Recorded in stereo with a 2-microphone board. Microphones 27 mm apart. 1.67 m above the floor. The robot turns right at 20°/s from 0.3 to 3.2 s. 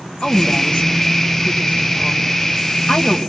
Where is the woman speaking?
45° left, 1.8 m; by 3.2 s 105° left, 1.8 m.